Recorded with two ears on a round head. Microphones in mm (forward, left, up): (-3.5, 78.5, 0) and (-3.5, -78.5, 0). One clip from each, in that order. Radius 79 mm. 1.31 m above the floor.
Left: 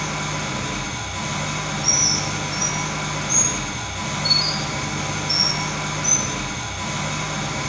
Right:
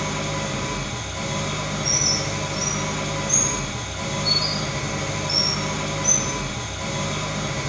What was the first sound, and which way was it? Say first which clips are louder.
An engine running: left 1 dB; 40° left (ahead or behind).